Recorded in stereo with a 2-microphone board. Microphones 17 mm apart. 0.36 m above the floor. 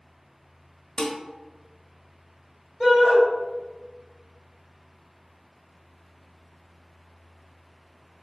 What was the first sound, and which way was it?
Dishes clattering, 45° left (ahead or behind).